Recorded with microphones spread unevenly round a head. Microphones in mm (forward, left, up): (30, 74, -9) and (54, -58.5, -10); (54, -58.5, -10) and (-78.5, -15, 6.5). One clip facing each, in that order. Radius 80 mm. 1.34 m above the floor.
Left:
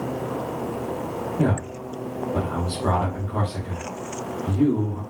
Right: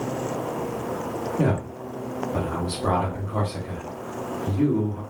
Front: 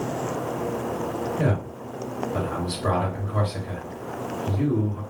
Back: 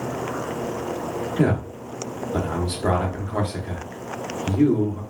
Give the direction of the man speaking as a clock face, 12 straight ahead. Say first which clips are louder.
Left 1 dB, back 4 dB; 6 o'clock.